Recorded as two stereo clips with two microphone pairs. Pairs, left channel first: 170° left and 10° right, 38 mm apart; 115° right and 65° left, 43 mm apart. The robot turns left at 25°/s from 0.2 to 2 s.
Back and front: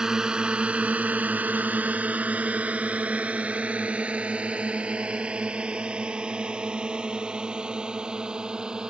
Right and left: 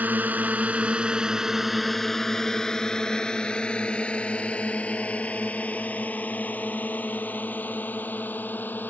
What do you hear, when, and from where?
0.0 s a drone: 55° left; by 8.9 s 80° right